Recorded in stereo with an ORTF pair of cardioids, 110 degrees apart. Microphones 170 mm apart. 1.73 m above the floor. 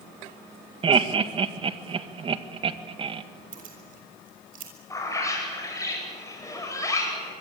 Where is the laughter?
35° right, 2.0 m.